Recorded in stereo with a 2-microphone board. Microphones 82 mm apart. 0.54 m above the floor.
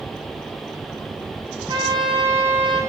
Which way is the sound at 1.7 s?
65° right (ahead or behind).